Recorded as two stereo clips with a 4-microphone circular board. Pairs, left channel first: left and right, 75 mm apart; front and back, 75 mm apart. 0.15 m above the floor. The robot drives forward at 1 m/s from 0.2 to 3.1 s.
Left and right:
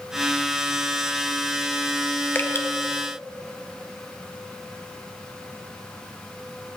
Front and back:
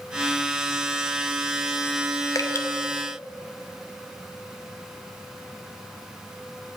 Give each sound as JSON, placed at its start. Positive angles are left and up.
{"t": 2.4, "sound": "dripping", "azimuth_deg": 30, "distance_m": 1.0}